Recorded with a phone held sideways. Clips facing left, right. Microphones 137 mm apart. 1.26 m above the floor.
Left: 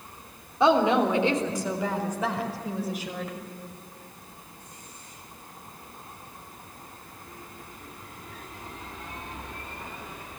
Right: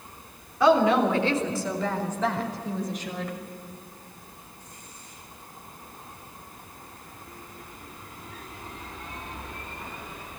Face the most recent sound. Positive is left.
turn(degrees=5)  # may be behind; listen again after turning